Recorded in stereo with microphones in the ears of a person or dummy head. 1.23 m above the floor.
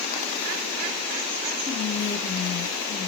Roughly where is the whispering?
Left.